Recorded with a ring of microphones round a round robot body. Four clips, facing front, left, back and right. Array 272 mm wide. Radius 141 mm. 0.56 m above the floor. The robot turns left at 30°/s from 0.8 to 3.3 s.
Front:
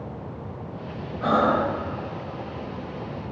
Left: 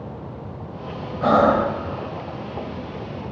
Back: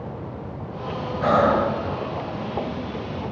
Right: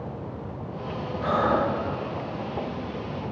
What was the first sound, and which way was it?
Breathing, 120° left.